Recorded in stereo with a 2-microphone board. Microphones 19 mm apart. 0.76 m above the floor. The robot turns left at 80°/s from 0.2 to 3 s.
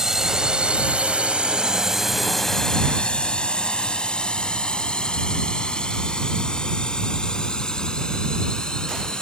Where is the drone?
25° right (ahead or behind); by 9.2 s 40° left (ahead or behind).